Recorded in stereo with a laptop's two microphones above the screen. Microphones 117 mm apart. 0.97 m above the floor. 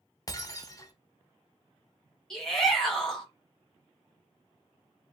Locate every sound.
0.3 s breaking glass: 30° left (ahead or behind), 1.0 m
2.3 s a shout: 5° left (ahead or behind), 1.4 m